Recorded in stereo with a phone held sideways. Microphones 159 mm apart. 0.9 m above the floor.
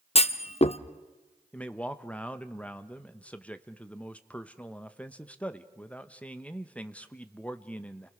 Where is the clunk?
40° left (ahead or behind), 0.6 m.